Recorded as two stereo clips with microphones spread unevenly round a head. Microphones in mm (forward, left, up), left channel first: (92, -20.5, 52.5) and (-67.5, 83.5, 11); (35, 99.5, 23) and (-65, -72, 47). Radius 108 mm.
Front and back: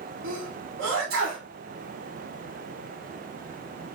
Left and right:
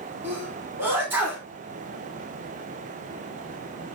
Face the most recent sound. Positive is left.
turn(degrees=170)